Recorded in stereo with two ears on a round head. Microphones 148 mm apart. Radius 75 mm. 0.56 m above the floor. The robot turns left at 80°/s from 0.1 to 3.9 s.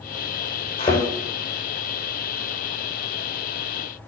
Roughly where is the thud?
Left.